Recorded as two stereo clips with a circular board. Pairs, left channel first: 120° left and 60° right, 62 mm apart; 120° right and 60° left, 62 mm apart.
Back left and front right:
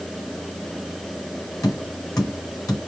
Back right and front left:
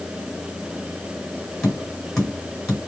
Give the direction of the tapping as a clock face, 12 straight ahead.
7 o'clock.